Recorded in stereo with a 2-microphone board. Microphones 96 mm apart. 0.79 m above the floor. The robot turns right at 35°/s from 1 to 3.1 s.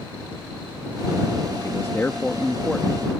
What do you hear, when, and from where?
1.6 s a man speaking: 140° left; by 3.0 s 170° right